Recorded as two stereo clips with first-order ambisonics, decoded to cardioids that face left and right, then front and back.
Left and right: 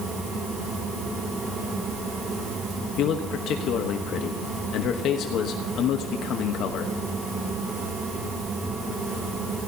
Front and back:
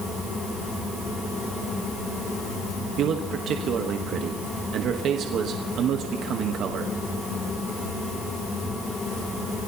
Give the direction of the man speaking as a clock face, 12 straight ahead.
8 o'clock.